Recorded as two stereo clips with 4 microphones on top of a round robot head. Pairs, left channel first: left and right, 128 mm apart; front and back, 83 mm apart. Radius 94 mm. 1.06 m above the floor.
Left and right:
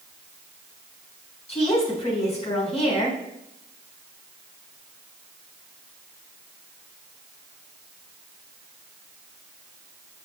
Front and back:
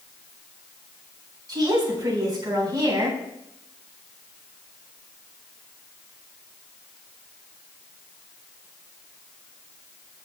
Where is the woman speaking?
135° left, 3.5 m.